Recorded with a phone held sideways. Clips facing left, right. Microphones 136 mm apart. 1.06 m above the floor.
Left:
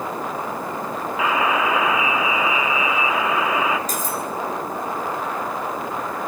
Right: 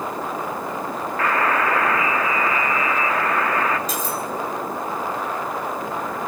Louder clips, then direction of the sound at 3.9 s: Even; 45° left (ahead or behind).